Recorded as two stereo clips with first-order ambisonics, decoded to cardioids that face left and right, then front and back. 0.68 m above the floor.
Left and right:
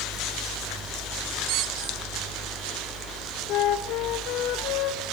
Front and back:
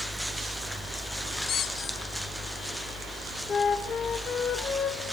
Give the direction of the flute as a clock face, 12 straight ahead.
10 o'clock.